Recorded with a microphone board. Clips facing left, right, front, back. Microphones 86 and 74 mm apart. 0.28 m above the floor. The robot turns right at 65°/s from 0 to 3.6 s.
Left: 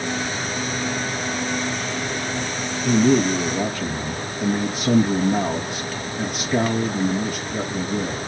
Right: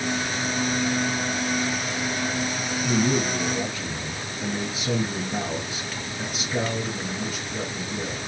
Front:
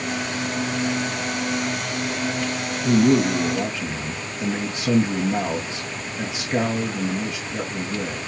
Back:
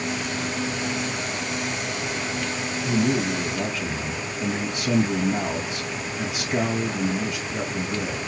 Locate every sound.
2.8 s a man speaking: 15° left, 2.0 m; by 8.2 s 65° left, 2.0 m